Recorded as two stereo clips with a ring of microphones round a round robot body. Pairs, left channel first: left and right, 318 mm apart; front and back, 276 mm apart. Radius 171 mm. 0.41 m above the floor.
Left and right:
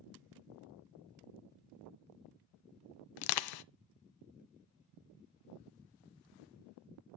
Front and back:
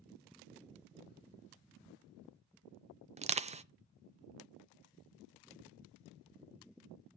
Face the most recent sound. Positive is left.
turn(degrees=110)